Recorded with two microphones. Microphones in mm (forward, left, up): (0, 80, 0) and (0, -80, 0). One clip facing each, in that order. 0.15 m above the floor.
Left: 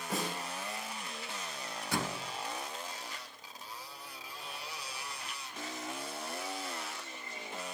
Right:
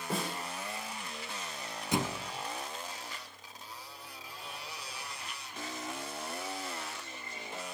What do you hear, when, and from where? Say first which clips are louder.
0.1 s a snare drum: right 1 dB; 30° right (ahead or behind), 8.5 m
1.9 s a thud: right 4 dB; 20° right (ahead or behind), 0.7 m